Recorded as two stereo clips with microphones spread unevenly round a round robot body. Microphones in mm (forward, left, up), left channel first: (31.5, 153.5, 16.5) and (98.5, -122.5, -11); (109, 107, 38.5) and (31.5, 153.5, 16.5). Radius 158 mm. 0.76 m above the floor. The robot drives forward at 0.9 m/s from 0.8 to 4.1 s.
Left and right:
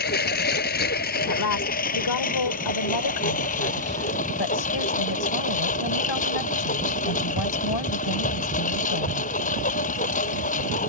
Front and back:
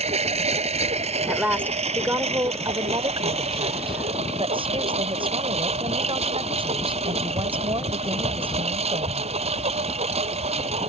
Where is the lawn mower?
165° left; by 10.9 s 170° left.